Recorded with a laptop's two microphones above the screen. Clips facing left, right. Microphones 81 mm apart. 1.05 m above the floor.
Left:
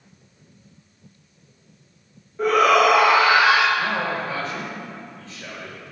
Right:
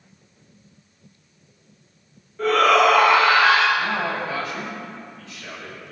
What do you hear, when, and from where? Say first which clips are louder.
2.4 s a shout: even; 15° left (ahead or behind), 1.3 m
3.8 s a man speaking: even; 35° left (ahead or behind), 5.5 m